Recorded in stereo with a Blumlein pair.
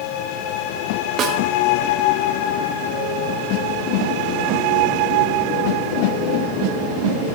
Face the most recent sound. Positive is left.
turn(degrees=-30)